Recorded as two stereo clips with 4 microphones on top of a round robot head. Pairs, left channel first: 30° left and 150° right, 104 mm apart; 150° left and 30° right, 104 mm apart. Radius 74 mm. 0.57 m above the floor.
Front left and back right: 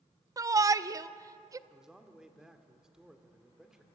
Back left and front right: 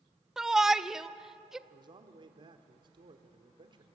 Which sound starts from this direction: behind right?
A shout, at 0.4 s.